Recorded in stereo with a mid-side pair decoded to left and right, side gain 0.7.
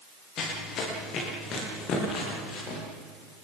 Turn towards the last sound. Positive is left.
turn(degrees=45)